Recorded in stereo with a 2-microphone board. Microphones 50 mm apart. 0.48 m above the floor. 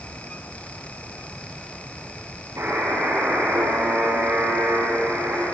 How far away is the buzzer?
About 8 m.